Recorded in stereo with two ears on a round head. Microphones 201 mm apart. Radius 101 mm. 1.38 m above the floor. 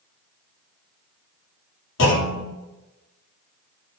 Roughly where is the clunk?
Left.